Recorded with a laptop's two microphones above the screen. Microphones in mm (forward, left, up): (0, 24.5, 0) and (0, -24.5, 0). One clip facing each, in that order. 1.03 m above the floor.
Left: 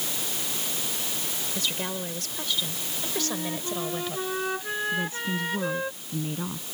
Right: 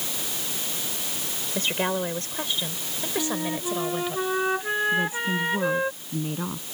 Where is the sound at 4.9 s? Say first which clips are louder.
Right 4 dB; 15° right (ahead or behind).